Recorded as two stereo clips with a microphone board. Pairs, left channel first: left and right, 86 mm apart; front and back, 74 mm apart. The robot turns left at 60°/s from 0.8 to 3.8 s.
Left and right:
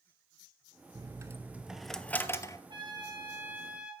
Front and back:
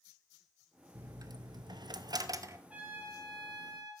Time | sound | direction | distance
0.9 | a dropped coin | 130° right | 0.6 m
2.7 | a trumpet | 105° right | 2.5 m